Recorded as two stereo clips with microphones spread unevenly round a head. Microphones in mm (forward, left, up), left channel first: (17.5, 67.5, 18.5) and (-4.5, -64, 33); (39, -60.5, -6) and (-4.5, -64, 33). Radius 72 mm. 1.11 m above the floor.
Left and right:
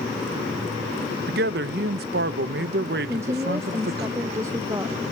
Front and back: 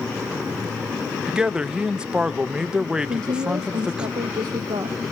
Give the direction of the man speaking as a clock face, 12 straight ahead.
3 o'clock.